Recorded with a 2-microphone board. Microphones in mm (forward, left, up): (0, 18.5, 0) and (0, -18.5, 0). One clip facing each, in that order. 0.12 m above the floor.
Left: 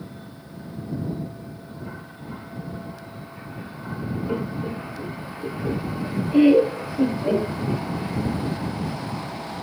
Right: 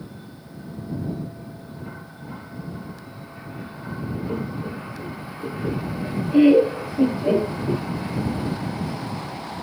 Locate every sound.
4.3 s laughter: 25° left (ahead or behind); by 7.8 s 20° right (ahead or behind)